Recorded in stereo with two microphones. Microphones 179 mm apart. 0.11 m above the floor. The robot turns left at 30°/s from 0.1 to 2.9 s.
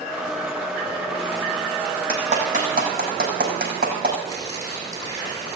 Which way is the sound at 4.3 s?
25° left (ahead or behind).